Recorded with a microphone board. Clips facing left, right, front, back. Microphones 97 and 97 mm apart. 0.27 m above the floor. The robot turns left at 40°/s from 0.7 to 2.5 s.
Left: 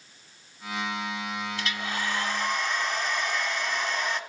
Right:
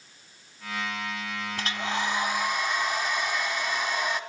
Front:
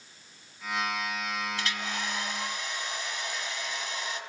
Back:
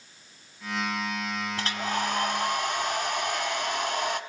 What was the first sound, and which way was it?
A hair dryer, 135° right.